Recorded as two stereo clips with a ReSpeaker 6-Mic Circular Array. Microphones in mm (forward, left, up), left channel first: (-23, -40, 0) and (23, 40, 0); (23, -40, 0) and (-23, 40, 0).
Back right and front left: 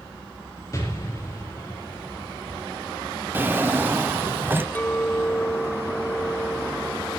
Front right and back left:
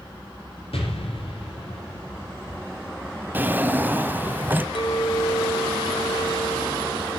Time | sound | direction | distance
0.7 | an explosion | 65° right | 6 m
3.3 | a drawer | 85° left | 0.7 m
4.8 | a clink | 50° right | 1.7 m